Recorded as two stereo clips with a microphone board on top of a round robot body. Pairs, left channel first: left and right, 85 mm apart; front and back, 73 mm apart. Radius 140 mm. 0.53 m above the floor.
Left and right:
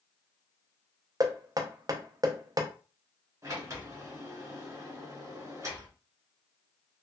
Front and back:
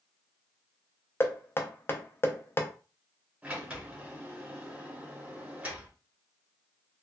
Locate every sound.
1.2 s knocking: 55° right, 0.7 m
3.4 s a sliding door: 115° right, 1.6 m